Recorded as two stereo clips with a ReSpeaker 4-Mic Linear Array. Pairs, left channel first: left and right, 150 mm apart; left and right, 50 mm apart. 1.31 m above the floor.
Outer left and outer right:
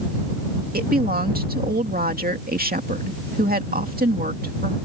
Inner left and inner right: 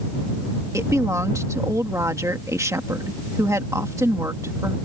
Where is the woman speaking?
80° right.